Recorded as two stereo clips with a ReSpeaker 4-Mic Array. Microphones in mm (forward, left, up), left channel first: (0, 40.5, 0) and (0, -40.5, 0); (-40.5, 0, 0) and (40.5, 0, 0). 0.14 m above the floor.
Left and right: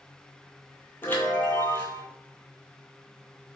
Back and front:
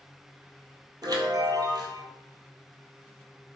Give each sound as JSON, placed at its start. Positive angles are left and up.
{"t": 1.0, "sound": "a chime", "azimuth_deg": 25, "distance_m": 0.7}